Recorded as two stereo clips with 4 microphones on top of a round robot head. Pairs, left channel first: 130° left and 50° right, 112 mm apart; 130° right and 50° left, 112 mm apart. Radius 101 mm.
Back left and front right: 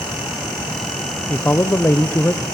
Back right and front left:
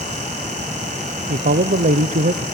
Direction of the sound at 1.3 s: 55° left.